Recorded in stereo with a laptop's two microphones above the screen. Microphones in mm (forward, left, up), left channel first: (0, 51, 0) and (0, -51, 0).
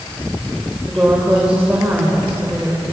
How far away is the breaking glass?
No breaking glass in this recording.